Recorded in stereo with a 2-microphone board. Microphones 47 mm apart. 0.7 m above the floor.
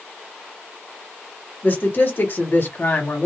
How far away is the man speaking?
About 1.5 m.